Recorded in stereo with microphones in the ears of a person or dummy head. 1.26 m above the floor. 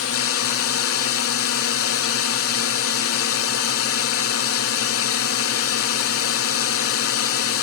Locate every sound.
0.0 s a drone: 70° left (ahead or behind)